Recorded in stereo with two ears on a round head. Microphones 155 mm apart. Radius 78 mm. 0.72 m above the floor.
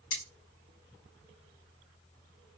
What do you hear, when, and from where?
0.1 s cutlery clinking: 50° left (ahead or behind), 0.9 m